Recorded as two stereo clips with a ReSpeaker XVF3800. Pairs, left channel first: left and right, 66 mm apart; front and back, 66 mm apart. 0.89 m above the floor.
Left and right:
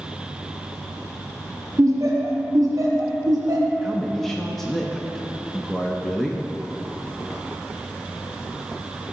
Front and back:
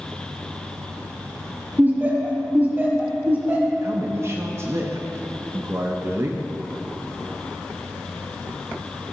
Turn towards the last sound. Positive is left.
turn(degrees=170)